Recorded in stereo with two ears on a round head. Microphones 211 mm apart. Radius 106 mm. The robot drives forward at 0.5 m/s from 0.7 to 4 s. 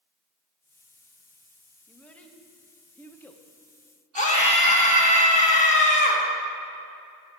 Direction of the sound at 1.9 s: 5° left (ahead or behind).